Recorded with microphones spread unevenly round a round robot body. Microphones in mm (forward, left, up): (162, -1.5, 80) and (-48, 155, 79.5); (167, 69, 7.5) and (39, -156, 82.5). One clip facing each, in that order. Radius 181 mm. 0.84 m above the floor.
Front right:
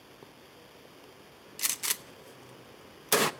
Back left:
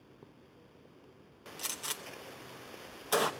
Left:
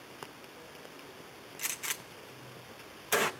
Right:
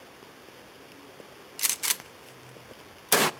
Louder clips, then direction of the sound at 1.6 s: Back left 1 dB, right 3 dB; 85° right.